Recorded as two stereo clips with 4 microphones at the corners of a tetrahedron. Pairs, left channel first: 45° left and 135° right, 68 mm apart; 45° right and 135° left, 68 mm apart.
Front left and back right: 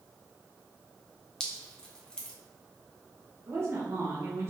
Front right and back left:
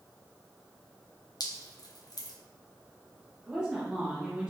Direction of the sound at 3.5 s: 155° right.